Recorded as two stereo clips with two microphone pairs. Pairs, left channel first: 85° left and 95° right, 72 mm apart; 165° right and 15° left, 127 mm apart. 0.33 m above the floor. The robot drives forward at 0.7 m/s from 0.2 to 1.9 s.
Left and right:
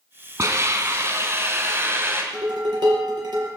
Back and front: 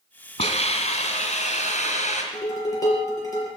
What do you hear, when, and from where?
0.4 s a hiss: 135° right, 2.5 m; by 2.2 s 145° right, 3.5 m
2.3 s dishes clattering: 105° right, 5.5 m